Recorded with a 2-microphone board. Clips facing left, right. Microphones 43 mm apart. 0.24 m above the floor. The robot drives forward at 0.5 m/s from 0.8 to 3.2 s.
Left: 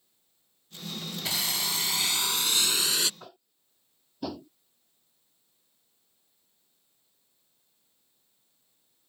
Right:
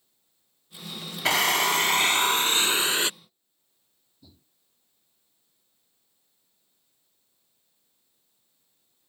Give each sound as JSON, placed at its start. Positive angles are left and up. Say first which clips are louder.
{"t": 1.2, "sound": "a drill", "louder": "right 11 dB", "side_deg": -55}
{"t": 3.2, "sound": "tapping", "louder": "left 14 dB", "side_deg": 75}